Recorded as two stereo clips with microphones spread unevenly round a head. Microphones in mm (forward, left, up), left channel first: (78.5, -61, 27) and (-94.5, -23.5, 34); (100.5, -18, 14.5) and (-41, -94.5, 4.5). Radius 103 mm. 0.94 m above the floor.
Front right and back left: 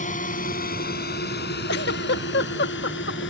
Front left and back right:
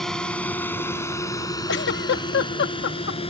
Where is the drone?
60° right; by 3.3 s 25° right.